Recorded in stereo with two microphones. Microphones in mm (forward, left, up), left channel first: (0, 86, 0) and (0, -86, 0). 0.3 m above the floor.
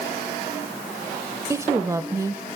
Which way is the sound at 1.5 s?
15° right (ahead or behind).